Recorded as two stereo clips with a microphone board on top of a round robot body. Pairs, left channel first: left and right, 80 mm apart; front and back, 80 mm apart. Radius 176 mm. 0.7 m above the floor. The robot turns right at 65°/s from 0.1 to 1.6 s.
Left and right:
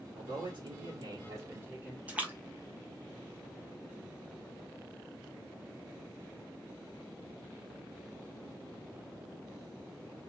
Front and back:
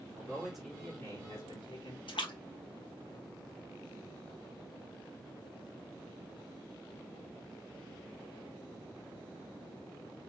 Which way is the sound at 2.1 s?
15° right.